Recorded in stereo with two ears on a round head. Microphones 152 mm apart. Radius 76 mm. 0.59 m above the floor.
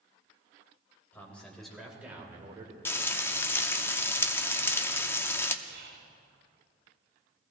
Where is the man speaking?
10° left (ahead or behind), 3 m; by 2.8 s 30° right (ahead or behind), 2 m.